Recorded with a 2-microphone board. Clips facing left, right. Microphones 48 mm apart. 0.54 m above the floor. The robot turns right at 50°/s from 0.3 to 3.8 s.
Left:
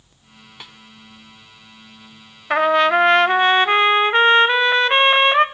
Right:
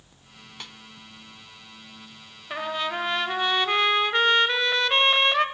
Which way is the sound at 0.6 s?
10° left (ahead or behind).